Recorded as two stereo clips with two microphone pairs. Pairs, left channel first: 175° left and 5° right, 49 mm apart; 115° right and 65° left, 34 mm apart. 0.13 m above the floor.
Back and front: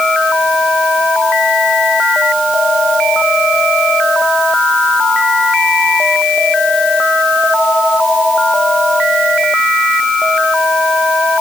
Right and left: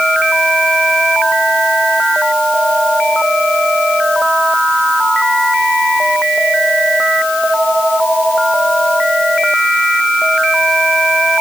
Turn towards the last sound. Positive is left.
No sound to turn to.